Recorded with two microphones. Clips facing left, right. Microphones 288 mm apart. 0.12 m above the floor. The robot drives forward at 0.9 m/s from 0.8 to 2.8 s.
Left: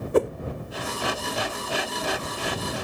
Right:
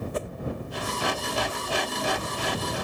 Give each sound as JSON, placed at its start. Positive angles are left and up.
{"t": 0.1, "sound": "a whoosh", "side_deg": 70}